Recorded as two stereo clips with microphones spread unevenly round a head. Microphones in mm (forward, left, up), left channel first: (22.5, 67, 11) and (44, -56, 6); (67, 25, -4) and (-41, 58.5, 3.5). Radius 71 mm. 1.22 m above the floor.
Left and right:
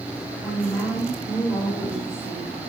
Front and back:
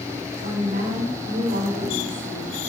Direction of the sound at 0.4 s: Straight behind.